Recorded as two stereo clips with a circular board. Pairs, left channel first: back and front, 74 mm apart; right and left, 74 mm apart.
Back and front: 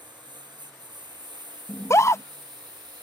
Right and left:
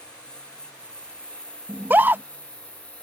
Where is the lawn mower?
10° right; by 3.0 s 15° right.